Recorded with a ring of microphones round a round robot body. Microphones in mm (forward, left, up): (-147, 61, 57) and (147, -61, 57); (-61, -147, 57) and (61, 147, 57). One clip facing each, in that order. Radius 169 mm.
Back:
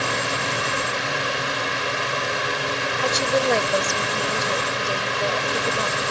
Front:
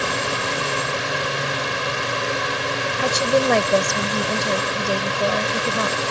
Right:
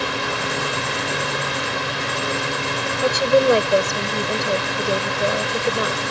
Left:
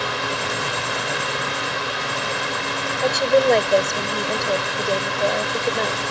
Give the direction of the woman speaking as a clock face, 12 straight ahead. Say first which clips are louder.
Front 3 dB, right 1 dB; 1 o'clock.